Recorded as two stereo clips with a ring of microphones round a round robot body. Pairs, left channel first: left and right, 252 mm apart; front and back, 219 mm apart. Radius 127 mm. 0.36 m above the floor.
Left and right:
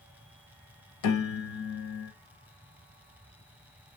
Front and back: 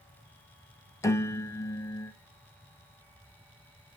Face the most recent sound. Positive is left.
turn(degrees=75)